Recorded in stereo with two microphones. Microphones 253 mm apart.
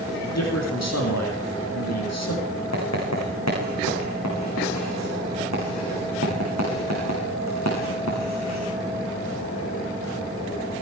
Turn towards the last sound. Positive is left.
turn(degrees=80)